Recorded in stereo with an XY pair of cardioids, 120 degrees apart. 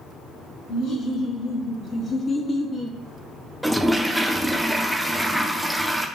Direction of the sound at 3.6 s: Straight ahead.